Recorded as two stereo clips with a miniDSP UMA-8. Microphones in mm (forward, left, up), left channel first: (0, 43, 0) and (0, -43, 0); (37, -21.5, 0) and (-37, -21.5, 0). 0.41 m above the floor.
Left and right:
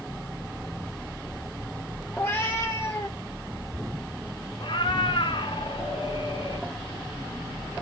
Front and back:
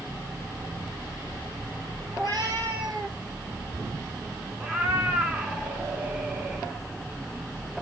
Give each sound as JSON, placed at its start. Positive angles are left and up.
{"t": 2.1, "sound": "a cat meowing", "azimuth_deg": 155, "distance_m": 2.0}
{"t": 4.6, "sound": "a cat meowing", "azimuth_deg": 110, "distance_m": 1.3}